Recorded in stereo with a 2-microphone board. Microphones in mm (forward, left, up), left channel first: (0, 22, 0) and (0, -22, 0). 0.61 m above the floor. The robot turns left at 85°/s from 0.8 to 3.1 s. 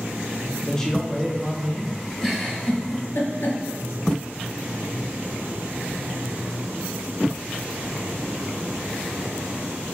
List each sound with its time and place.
0.7 s a man speaking: 15° left (ahead or behind), 0.6 m; by 2.0 s 25° right (ahead or behind), 0.6 m
2.2 s a giggle: 10° right (ahead or behind), 1.0 m; by 3.6 s 65° left (ahead or behind), 1.0 m